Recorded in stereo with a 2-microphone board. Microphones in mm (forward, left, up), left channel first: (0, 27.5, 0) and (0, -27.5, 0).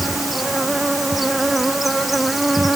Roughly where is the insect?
Centre.